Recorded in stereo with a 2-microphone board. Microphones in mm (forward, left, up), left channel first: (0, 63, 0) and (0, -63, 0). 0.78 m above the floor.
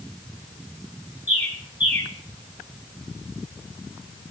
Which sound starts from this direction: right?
A bird, at 1.3 s.